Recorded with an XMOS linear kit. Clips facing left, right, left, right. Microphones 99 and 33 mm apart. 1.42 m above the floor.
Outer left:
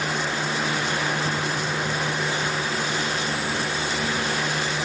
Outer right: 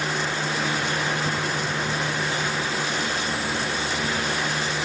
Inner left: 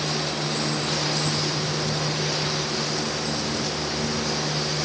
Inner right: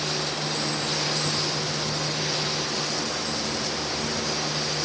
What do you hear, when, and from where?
Only background noise.